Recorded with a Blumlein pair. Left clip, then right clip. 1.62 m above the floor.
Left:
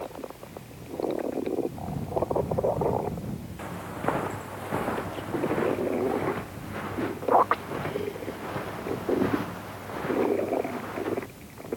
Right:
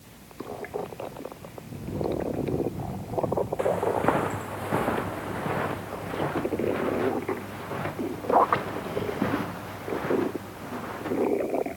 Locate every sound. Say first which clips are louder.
3.6 s footsteps: right 6 dB; 15° right; by 11.3 s 5° right